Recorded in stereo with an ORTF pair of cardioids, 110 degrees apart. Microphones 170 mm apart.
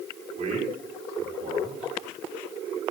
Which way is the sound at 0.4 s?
45° right.